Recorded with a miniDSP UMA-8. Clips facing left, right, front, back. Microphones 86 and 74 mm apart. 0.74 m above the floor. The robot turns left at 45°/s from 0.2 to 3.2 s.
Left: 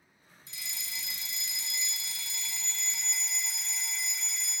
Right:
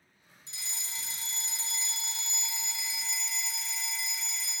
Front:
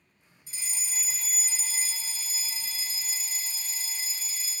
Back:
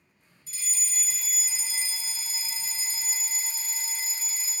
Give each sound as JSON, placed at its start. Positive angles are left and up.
{"t": 0.5, "sound": "a fire alarm", "azimuth_deg": -55, "distance_m": 1.6}